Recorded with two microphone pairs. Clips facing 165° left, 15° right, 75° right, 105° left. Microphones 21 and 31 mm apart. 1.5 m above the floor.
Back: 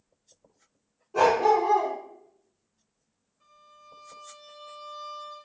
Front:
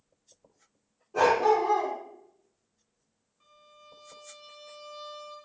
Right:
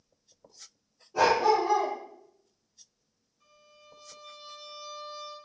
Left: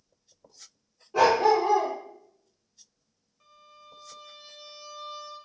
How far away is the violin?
About 1.6 m.